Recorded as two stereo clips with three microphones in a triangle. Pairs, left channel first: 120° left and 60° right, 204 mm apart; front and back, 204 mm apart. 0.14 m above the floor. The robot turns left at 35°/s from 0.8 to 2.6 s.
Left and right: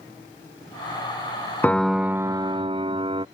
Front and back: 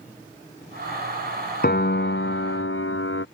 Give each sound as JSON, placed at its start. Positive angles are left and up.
{"t": 1.6, "sound": "a piano", "azimuth_deg": 40}